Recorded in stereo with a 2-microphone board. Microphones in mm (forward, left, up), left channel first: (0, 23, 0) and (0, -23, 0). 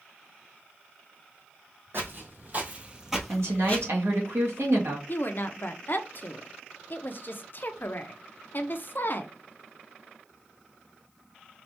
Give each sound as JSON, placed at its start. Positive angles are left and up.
{"t": 1.9, "sound": "footsteps", "side_deg": -55, "distance_m": 2.0}
{"t": 3.3, "sound": "a woman speaking", "side_deg": -80, "distance_m": 1.7}
{"t": 5.1, "sound": "a woman speaking", "side_deg": 50, "distance_m": 0.6}